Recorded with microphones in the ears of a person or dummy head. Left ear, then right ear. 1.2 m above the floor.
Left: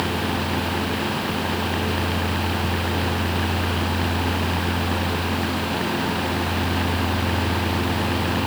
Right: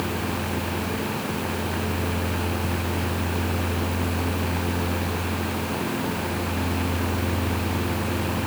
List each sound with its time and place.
Only background noise.